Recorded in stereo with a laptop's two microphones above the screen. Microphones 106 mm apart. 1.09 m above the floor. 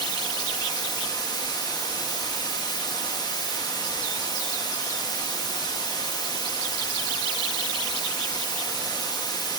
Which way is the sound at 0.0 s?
40° left (ahead or behind).